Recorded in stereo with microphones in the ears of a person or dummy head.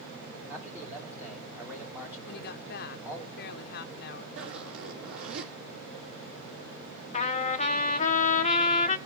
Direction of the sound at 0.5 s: 10° right (ahead or behind).